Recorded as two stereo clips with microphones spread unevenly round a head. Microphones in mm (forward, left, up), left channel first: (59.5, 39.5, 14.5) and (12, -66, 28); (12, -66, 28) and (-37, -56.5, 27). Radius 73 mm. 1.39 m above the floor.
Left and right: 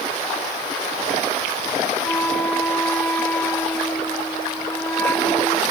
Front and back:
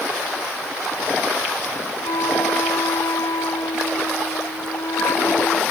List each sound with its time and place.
2.0 s a flute: 10° right